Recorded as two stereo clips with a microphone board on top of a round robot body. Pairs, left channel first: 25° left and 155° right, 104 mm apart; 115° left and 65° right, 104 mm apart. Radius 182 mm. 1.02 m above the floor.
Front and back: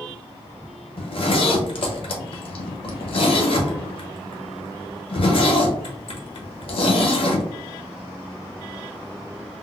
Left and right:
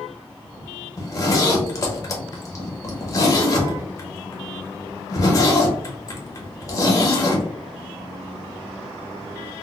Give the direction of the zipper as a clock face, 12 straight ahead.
10 o'clock.